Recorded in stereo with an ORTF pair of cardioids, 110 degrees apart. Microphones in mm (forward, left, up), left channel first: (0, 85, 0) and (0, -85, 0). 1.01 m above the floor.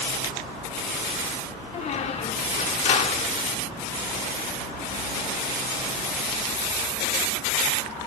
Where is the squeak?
40° left, 1.3 m.